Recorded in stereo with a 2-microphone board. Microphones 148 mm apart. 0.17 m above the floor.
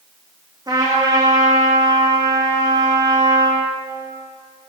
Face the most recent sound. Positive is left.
turn(degrees=-30)  # may be behind; listen again after turning